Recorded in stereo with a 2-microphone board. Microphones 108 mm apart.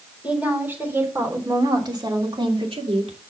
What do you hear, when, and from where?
0.2 s a woman speaking: 15° right (ahead or behind), 4 m; by 3.2 s 70° right (ahead or behind), 3 m